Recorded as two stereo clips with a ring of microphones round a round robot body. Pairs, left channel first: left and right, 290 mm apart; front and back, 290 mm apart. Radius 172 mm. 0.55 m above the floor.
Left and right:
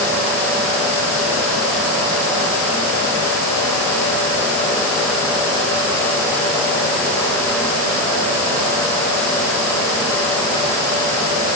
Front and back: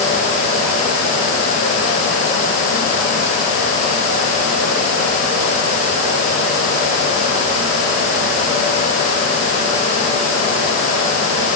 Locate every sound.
Only background noise.